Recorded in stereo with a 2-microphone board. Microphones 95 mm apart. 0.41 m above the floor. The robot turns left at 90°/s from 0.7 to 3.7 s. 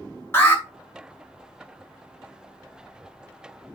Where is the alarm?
25° left (ahead or behind), 2.5 m.